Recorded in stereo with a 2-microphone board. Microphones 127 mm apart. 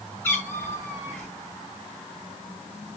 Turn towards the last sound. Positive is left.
turn(degrees=15)  # may be behind; listen again after turning